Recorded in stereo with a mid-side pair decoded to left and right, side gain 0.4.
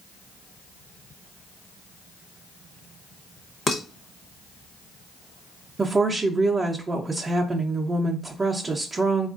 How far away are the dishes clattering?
About 1.0 m.